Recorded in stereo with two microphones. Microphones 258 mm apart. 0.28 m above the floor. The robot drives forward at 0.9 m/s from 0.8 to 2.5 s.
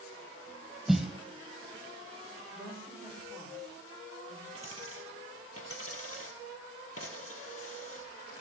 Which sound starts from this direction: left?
A dropped coin, at 4.5 s.